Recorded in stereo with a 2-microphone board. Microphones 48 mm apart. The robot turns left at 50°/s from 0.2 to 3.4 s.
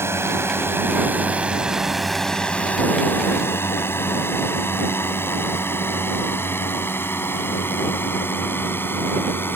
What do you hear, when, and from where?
0.0 s a drone: 70° right (ahead or behind); by 9.6 s 50° left (ahead or behind)